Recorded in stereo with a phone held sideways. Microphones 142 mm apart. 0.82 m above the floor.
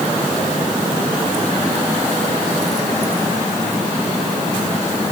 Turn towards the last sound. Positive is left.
No sound to turn to.